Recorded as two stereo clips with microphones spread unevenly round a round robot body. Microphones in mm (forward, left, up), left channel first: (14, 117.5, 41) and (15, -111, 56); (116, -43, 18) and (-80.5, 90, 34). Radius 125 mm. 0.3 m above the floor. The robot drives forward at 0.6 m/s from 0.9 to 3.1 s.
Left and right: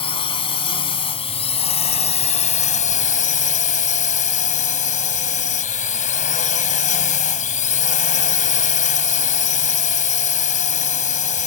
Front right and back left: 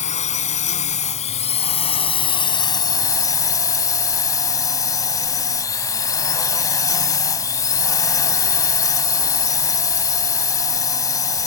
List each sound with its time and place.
0.0 s a drone: 25° left; by 11.5 s 40° left